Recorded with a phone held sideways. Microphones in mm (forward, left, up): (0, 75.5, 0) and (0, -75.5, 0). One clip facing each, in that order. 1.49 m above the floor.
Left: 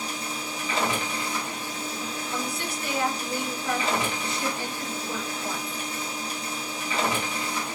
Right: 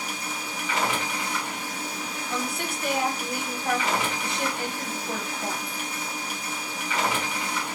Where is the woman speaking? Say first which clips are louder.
Right 3 dB; 60° right (ahead or behind), 1.2 m.